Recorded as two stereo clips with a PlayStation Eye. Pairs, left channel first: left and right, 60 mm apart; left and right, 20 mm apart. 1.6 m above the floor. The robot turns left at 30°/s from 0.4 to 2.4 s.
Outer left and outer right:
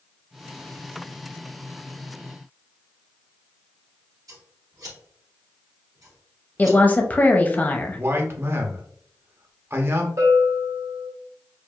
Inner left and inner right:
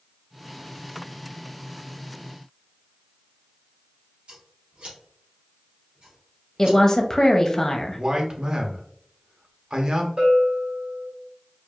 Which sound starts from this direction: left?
A woman speaking, at 6.6 s.